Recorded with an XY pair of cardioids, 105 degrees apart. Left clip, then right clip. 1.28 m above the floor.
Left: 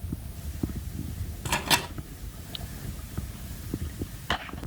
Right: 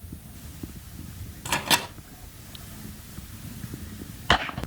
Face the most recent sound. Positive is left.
turn(degrees=-20)